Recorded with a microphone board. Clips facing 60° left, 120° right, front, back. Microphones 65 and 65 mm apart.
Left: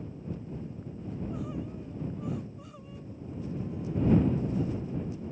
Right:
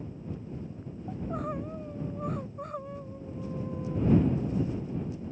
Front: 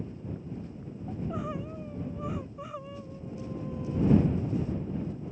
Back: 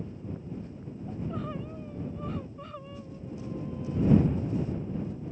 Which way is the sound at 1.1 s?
80° right.